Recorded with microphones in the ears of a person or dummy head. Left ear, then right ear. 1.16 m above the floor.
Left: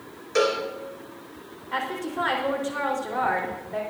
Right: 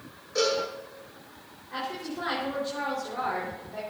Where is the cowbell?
70° left (ahead or behind), 3 m.